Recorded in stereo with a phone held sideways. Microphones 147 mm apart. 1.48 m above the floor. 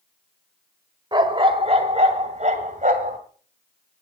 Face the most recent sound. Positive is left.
turn(degrees=-60)  # may be behind; listen again after turning